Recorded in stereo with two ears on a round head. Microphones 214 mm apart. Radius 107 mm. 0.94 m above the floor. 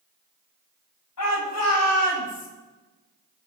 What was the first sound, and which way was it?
A shout, 85° left.